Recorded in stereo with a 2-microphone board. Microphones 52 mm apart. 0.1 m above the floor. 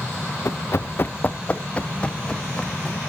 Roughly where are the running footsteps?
Left.